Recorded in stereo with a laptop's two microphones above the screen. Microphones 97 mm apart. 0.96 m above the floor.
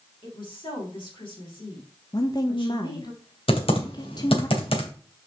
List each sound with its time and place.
0.2 s a woman speaking: 60° left (ahead or behind), 3.5 m
2.1 s a woman speaking: 45° left (ahead or behind), 1.2 m
3.5 s typing on a keyboard: 70° left (ahead or behind), 2.5 m